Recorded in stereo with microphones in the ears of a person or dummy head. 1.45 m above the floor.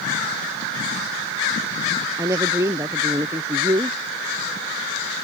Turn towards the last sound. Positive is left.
turn(degrees=-10)  # may be behind; listen again after turning